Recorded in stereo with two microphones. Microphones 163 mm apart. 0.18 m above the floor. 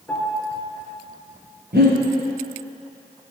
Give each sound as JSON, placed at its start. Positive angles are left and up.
{"t": 0.1, "sound": "a piano", "side_deg": 10, "distance_m": 3.5}
{"t": 1.7, "sound": "breathing", "side_deg": -80, "distance_m": 4.0}